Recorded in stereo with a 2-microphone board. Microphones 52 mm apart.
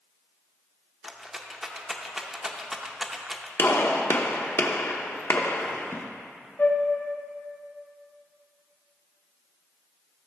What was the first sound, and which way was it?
A rattle, 10° right (ahead or behind).